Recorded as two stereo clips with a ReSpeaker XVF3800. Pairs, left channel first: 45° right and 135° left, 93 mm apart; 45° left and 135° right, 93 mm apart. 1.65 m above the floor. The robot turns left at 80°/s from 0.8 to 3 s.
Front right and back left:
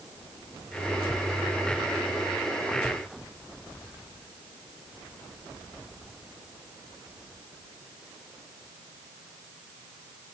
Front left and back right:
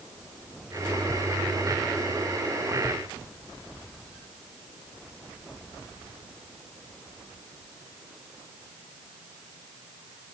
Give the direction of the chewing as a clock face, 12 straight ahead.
No chewing in this recording.